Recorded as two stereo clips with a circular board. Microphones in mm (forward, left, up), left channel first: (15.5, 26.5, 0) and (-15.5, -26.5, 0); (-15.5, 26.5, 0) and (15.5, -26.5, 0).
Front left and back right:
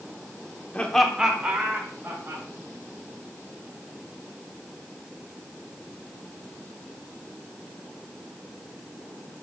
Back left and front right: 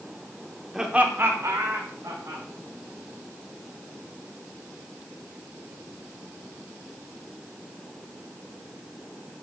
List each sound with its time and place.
0.7 s laughter: 15° left, 1.0 m; by 2.4 s 65° right, 2.5 m